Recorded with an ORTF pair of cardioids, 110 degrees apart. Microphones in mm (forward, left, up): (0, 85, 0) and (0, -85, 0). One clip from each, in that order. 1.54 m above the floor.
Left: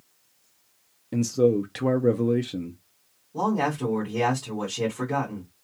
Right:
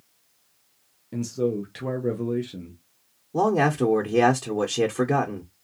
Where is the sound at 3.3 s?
60° right, 1.0 m.